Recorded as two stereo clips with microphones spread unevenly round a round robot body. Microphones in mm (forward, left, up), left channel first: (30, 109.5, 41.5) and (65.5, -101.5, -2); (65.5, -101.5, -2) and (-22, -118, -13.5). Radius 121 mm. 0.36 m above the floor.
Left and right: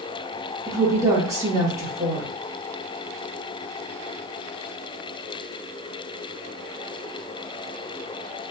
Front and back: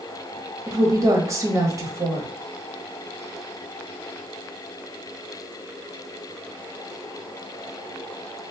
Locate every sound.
0.7 s a woman speaking: 140° right, 1.5 m